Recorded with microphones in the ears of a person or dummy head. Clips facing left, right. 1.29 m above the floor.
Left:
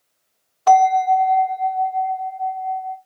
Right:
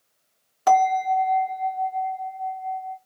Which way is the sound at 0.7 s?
25° right (ahead or behind).